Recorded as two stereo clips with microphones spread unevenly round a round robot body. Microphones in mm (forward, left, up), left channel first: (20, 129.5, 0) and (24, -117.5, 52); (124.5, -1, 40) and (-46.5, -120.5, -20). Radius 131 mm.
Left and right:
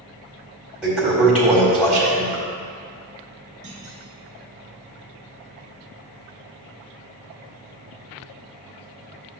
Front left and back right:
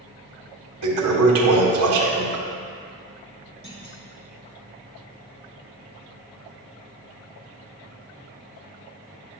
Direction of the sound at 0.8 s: 170° right.